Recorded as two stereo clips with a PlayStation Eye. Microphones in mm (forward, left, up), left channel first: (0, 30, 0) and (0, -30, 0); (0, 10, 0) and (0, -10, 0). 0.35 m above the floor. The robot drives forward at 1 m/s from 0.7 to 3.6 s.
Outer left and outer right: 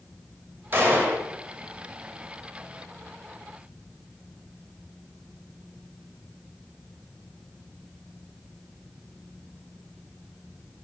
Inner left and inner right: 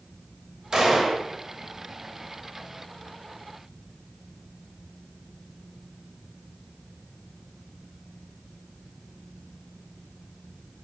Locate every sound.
0.7 s a gunshot: 35° right (ahead or behind), 1.3 m; by 1.2 s 30° right (ahead or behind), 1.5 m